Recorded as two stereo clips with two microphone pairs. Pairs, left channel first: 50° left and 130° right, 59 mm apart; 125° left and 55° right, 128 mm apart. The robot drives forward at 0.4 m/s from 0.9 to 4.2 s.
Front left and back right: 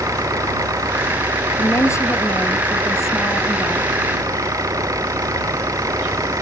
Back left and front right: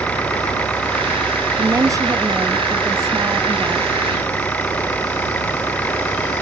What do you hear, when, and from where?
0.0 s an engine running: 155° right
1.6 s a woman speaking: 10° left